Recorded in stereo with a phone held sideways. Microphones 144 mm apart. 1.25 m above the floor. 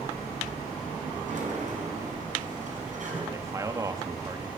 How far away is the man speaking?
About 2.5 m.